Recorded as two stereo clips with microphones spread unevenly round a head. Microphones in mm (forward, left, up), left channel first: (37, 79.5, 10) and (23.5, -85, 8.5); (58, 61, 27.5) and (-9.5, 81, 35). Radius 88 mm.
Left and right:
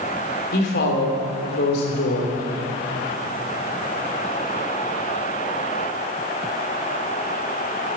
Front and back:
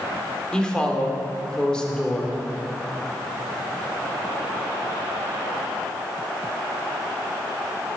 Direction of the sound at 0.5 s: 65° left.